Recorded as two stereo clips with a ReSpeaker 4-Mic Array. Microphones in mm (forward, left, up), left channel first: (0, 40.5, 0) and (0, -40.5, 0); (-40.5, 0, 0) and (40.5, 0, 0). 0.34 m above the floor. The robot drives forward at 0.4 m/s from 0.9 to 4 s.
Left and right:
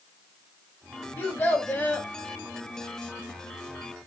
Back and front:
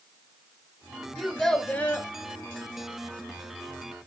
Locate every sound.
1.2 s a child speaking: 75° left, 0.5 m; by 2.1 s 145° left, 0.6 m